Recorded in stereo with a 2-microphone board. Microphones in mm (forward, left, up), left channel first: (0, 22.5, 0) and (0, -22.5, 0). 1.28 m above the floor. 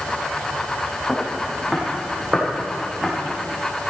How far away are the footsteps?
About 4.5 m.